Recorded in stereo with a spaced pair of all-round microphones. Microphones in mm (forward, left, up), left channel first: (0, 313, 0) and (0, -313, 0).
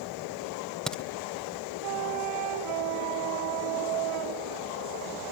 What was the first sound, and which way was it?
A crack, centre (ahead or behind).